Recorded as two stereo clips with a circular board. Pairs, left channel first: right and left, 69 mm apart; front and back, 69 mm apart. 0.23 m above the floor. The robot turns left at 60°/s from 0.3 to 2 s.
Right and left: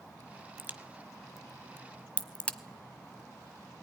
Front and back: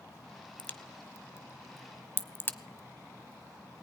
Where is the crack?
50° left, 1.1 m; by 2.6 s 35° right, 1.1 m.